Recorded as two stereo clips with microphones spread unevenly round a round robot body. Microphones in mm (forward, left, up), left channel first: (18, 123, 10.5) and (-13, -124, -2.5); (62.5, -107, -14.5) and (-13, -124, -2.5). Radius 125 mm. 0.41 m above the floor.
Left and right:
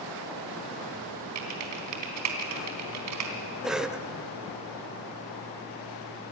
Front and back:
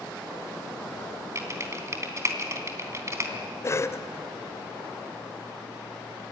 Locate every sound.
1.4 s typing on a keyboard: 115° right, 3.5 m
3.6 s a cough: 15° right, 1.3 m